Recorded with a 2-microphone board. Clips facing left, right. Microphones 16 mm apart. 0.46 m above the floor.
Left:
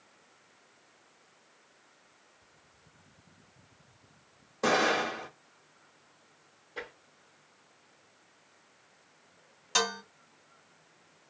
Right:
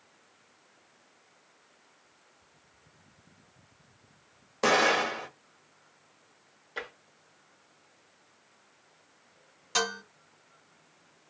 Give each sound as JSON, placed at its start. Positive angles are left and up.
{"t": 4.6, "sound": "an explosion", "side_deg": -40, "distance_m": 0.9}
{"t": 6.8, "sound": "tapping", "side_deg": -40, "distance_m": 1.1}
{"t": 9.8, "sound": "dishes clattering", "side_deg": 5, "distance_m": 0.9}